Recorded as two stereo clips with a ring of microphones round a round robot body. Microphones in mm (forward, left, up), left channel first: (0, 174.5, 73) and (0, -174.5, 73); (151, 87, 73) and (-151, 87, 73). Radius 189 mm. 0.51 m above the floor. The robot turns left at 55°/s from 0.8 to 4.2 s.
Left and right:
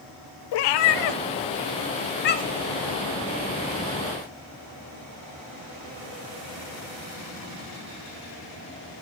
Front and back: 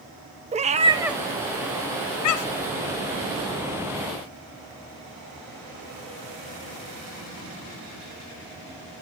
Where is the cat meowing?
110° left, 0.7 m; by 2.7 s 5° left, 0.7 m.